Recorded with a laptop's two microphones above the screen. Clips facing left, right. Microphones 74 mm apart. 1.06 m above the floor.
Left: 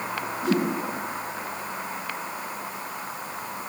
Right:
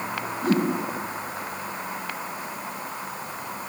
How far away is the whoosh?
About 8 m.